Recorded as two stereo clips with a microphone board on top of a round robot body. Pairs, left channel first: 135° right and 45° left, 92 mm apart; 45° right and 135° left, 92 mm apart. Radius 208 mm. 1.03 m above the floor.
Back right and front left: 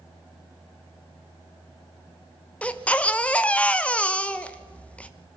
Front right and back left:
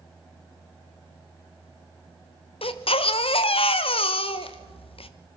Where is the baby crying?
60° right, 1.1 m.